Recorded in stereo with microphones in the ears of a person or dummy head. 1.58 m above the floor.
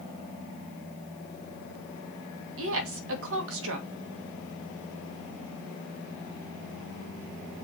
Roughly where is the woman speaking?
Right.